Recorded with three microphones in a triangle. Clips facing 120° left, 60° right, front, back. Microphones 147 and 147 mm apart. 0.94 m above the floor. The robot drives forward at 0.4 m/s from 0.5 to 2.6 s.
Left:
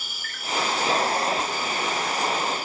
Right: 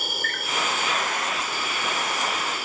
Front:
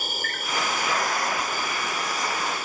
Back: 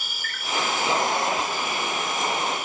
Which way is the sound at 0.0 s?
40° right.